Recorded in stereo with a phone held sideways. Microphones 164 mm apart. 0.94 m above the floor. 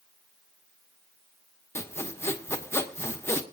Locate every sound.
1.8 s sawing: 15° left (ahead or behind), 1.2 m